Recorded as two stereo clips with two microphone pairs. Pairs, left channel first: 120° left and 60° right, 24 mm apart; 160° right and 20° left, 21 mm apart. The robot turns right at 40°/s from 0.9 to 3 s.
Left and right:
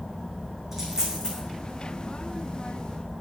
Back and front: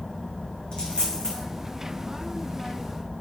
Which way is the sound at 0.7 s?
130° right.